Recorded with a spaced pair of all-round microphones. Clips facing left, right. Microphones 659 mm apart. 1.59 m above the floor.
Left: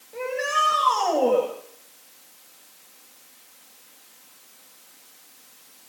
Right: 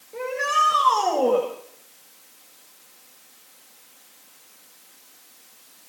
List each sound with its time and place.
0.1 s a shout: 20° left (ahead or behind), 8 m